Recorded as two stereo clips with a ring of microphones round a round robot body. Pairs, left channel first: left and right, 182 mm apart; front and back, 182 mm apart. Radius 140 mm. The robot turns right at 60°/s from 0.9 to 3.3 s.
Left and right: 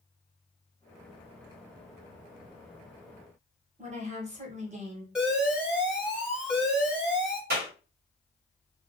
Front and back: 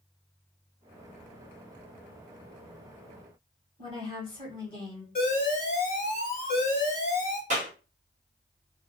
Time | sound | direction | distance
3.8 | a woman speaking | 55° right | 1.2 m
5.2 | an alarm | 5° right | 1.1 m
7.5 | a clap | 125° right | 1.2 m